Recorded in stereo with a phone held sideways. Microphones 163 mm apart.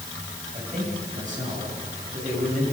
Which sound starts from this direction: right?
A man speaking, at 0.5 s.